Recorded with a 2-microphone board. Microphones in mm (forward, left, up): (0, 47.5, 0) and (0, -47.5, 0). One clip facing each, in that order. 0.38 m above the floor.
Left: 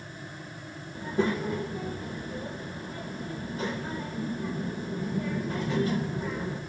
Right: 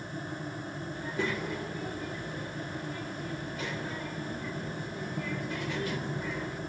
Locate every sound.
0.9 s a child speaking: 30° left (ahead or behind), 0.7 m